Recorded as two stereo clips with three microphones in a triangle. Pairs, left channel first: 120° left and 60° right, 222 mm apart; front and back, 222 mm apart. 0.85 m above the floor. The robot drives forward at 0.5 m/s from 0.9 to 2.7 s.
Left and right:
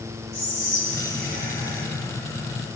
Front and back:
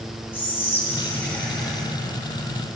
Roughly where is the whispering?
Right.